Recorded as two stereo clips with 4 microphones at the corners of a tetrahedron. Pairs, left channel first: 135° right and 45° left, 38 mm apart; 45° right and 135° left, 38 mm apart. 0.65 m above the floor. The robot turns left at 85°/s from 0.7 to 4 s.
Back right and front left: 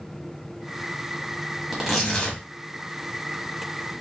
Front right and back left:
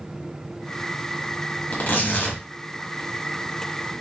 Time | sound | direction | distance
1.7 | tearing paper | 35° right | 1.4 m